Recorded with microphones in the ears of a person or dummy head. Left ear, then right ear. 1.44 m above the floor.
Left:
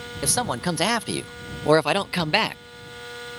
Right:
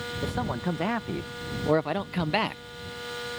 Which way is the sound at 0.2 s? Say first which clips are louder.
Left 8 dB; 70° left (ahead or behind).